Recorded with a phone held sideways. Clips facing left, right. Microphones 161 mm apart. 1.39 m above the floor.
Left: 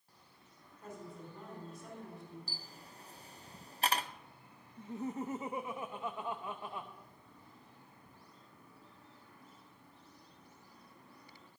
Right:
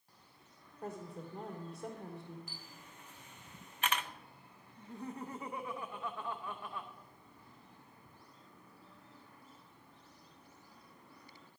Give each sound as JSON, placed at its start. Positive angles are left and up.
{"t": 0.8, "sound": "a woman speaking", "side_deg": -65, "distance_m": 4.0}
{"t": 2.5, "sound": "a camera shutter", "side_deg": 35, "distance_m": 0.6}
{"t": 4.8, "sound": "laughter", "side_deg": 20, "distance_m": 0.7}